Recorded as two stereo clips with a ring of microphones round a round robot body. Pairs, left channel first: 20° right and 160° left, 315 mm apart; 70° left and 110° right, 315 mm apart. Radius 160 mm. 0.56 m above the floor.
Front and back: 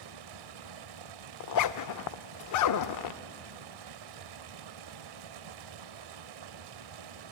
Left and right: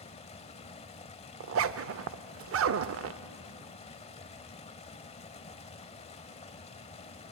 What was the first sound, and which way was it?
Running water, 140° left.